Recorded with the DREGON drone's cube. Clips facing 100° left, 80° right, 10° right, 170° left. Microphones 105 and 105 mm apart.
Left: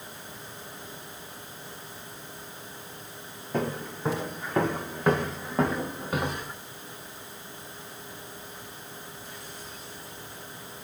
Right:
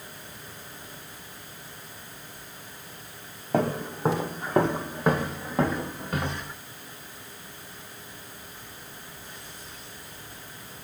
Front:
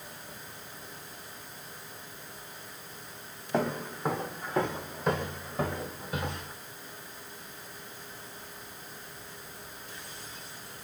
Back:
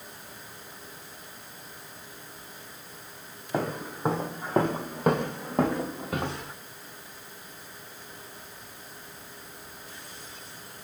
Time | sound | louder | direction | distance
3.5 | footsteps | right 4 dB, even | 110° right | 1.0 m